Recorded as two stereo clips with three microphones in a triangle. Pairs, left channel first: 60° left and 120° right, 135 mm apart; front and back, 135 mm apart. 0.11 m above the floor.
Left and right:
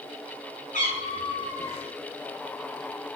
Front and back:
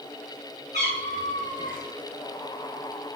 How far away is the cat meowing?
About 1.5 m.